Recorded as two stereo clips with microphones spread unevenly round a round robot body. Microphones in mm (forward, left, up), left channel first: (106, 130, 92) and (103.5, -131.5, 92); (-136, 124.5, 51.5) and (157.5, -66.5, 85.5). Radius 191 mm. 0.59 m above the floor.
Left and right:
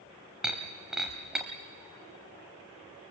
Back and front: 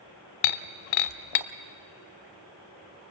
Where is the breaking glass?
Straight behind, 0.6 m.